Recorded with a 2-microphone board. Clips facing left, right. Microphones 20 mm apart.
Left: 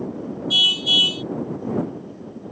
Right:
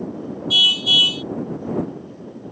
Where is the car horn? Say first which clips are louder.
Right 2 dB; 10° right (ahead or behind).